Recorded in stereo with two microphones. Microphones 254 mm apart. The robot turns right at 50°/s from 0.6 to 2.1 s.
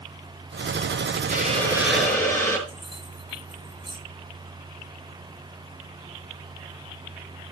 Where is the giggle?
No giggle in this recording.